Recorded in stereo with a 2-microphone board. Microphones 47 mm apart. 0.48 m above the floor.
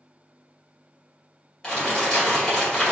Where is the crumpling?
15° left (ahead or behind), 2.0 m.